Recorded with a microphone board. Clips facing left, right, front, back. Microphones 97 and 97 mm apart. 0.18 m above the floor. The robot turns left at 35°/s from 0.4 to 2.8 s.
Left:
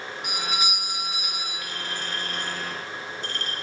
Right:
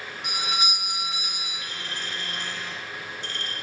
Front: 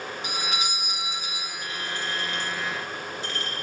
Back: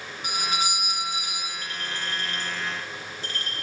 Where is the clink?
170° left, 2 m; by 3.5 s 125° left, 2 m.